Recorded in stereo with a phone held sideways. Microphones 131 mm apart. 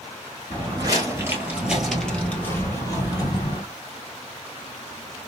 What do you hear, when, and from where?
0.5 s footsteps: 40° right (ahead or behind), 1.4 m; by 3.6 s 35° left (ahead or behind), 1.7 m